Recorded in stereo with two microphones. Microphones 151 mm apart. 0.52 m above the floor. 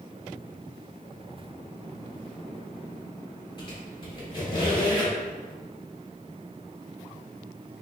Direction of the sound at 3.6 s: 35° left (ahead or behind).